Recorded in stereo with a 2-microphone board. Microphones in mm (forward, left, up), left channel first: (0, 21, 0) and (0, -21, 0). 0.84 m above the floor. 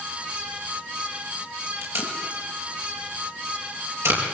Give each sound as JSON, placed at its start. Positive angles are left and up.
{"t": 1.8, "sound": "tape being pulled", "side_deg": -80, "distance_m": 5.5}